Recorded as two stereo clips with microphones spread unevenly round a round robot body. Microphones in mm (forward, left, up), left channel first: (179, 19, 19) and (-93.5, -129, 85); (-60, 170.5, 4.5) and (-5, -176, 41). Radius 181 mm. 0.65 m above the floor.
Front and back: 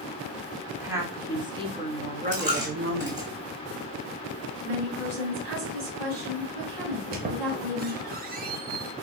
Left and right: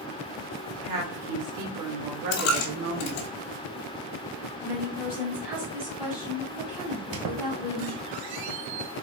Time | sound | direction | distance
0.7 | a woman speaking | 60° right | 1.9 m
2.3 | a dropped coin | 140° left | 1.1 m
4.6 | a woman speaking | 155° right | 3 m
6.9 | a squeak | 95° right | 1.0 m